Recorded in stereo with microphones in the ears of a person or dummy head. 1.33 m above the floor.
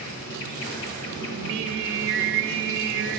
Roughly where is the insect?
Left.